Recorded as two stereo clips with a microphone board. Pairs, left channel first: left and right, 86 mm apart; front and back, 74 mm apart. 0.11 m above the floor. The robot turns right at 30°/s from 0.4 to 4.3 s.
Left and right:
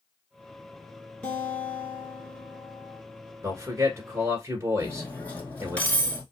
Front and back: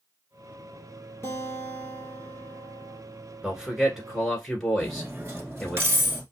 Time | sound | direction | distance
1.2 | a guitar | 25° left | 1.8 m
3.4 | a man speaking | 115° right | 1.5 m
4.8 | cutlery clinking | 150° left | 1.1 m